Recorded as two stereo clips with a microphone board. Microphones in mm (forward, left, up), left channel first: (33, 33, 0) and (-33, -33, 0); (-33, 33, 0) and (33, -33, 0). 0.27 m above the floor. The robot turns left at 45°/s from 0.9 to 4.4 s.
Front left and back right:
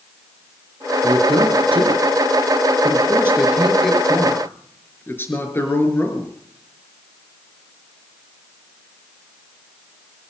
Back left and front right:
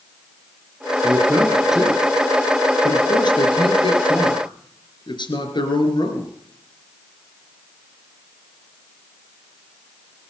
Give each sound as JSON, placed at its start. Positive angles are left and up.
{"t": 1.0, "sound": "a man speaking", "azimuth_deg": -100, "distance_m": 4.0}